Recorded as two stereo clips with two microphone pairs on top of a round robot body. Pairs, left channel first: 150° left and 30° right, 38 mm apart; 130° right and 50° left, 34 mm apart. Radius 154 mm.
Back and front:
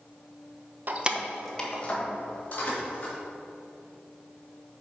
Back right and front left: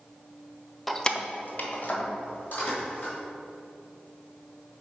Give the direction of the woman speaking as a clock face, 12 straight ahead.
I don't hear a woman speaking.